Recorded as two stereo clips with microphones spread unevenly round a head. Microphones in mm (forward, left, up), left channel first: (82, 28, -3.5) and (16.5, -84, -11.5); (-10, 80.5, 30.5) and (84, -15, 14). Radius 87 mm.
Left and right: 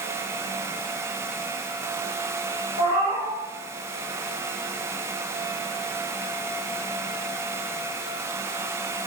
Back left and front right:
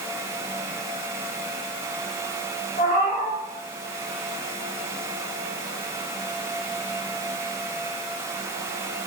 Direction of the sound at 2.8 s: Straight behind.